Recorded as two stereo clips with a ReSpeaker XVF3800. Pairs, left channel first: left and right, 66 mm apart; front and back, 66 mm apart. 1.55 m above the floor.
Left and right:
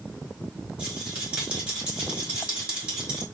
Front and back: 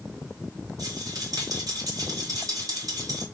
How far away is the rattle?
About 3 m.